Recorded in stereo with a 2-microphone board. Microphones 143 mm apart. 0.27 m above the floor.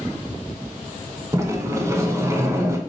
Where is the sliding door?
20° right (ahead or behind), 0.5 m.